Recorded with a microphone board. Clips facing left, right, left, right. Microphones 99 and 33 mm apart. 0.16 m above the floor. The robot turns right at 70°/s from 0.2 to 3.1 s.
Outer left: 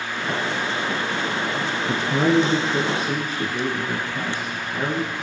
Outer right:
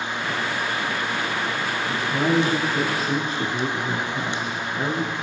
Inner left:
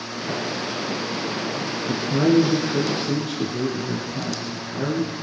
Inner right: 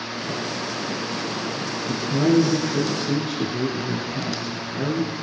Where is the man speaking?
90° left, 2.5 m; by 5.1 s 175° left, 2.5 m.